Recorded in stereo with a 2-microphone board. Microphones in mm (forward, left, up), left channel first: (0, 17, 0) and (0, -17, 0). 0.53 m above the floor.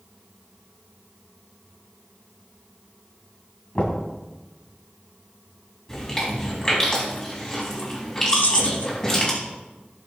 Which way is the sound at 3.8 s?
35° left (ahead or behind).